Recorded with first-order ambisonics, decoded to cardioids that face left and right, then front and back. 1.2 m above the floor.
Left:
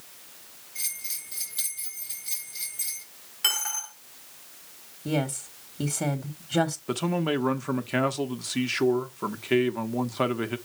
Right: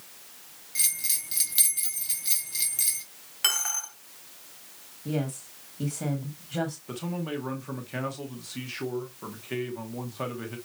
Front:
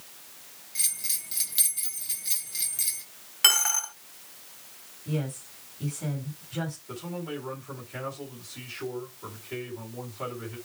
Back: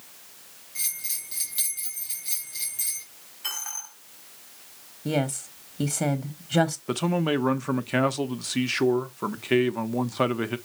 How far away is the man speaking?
About 0.9 m.